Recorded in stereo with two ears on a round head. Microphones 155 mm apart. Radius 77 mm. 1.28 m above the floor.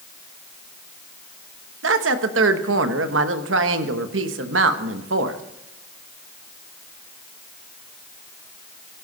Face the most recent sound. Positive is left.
turn(degrees=-85)